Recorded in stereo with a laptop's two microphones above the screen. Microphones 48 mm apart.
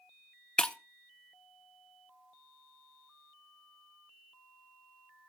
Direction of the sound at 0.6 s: 20° left (ahead or behind).